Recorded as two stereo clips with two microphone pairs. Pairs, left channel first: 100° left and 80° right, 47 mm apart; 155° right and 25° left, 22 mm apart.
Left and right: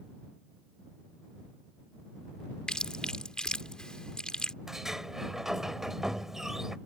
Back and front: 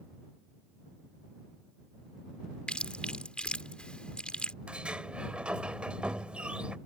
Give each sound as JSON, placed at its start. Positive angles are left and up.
{"t": 2.7, "sound": "chewing", "azimuth_deg": 170}
{"t": 4.7, "sound": "a sliding door", "azimuth_deg": 0}